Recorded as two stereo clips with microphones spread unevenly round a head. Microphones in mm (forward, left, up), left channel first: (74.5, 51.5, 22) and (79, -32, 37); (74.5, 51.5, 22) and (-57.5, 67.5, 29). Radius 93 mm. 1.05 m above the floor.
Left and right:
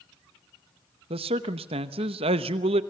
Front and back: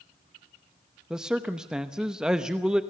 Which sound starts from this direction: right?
A man speaking, at 1.1 s.